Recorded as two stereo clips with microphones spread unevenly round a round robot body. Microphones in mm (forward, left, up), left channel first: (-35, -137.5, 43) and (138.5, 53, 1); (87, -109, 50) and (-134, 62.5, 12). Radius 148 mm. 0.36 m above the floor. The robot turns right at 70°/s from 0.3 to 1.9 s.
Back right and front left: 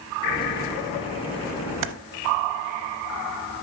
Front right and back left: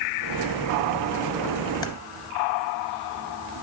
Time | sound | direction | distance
1.8 | typing on a keyboard | 40° left | 0.6 m